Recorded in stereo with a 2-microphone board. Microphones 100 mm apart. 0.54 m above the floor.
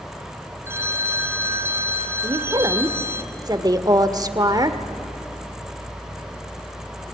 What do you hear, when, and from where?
0.7 s a phone ringing: 25° right (ahead or behind), 1.9 m
2.2 s a woman speaking: 40° right (ahead or behind), 1.4 m